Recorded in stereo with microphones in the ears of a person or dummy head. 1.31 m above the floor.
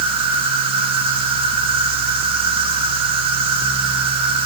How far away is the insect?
About 4 m.